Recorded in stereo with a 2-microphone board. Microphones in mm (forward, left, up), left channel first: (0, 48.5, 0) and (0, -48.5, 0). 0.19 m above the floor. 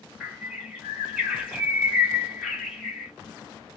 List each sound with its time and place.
0.2 s a bird: centre (ahead or behind), 1.7 m